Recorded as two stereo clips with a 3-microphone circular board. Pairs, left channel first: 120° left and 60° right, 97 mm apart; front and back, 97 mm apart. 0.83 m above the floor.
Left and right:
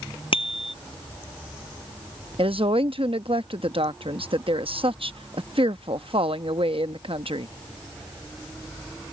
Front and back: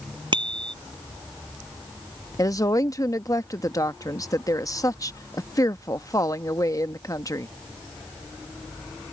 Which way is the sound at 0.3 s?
145° left.